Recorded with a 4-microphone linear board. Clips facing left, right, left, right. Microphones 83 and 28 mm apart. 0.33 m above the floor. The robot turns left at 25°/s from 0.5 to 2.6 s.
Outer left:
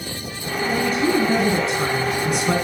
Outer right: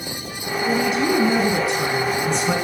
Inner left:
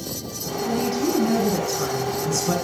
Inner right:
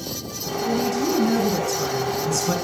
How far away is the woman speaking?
About 4 m.